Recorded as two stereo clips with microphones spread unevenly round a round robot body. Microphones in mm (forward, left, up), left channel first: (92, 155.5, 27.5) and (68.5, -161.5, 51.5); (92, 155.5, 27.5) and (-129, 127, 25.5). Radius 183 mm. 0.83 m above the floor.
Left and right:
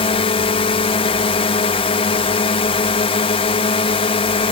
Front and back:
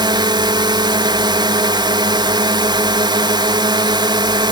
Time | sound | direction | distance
0.0 | a drone | 135° left | ?